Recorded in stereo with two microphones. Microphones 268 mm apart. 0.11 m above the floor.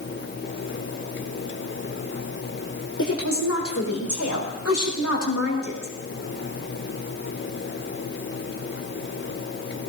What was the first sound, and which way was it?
A woman speaking, 55° left (ahead or behind).